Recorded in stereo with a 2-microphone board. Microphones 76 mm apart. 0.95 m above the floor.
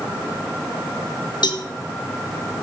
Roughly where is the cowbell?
Left.